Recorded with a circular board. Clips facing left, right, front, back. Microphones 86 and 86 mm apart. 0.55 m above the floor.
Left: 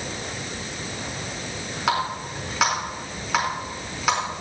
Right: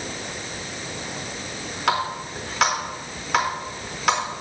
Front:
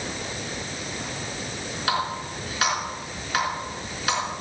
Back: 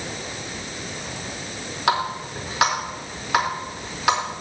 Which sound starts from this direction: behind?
A running tap, at 1.9 s.